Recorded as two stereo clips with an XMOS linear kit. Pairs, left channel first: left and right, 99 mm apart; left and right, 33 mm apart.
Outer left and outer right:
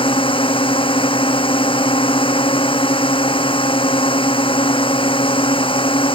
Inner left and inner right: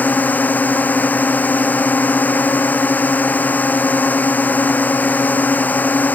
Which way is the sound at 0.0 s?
60° left (ahead or behind).